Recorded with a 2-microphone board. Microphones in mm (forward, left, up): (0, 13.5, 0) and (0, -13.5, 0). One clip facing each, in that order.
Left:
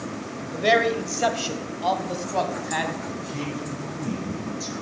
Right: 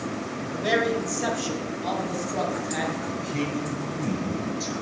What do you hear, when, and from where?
0.5 s a man speaking: 40° left (ahead or behind), 1.3 m; by 3.0 s 50° left (ahead or behind), 2.5 m
3.1 s a man speaking: 20° right (ahead or behind), 5.5 m